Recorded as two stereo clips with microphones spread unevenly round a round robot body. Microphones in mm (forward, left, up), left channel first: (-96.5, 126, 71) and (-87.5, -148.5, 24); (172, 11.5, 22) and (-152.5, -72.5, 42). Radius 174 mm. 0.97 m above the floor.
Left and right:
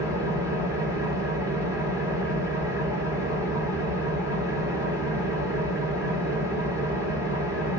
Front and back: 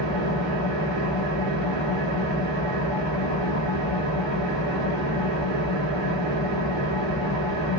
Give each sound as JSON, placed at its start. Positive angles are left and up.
{"t": 0.0, "sound": "an engine running", "azimuth_deg": -165, "distance_m": 2.0}